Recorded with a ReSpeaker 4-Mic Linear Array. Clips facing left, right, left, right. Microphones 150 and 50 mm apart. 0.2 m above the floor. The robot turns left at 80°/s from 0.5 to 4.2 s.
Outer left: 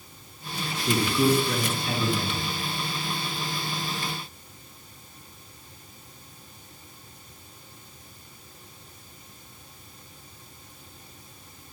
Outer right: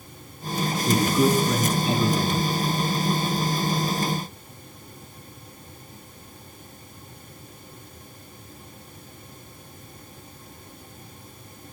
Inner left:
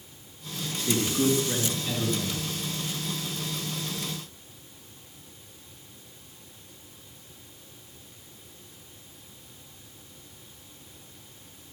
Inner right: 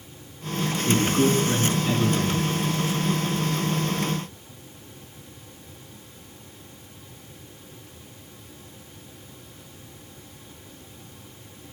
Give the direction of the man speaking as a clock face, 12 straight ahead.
2 o'clock.